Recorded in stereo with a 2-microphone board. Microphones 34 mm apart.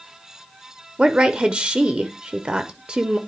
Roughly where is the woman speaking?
Right.